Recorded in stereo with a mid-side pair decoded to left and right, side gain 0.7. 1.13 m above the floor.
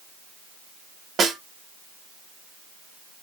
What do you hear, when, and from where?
1.2 s a snare drum: 35° right, 1.3 m